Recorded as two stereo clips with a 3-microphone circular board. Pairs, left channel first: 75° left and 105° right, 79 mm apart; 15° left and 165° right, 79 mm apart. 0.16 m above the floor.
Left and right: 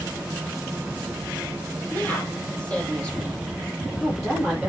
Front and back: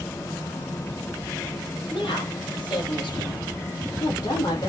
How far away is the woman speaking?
About 4.5 m.